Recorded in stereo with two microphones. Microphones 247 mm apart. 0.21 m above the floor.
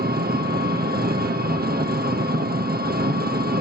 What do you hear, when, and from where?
0.0 s an engine running: 40° right (ahead or behind), 2.0 m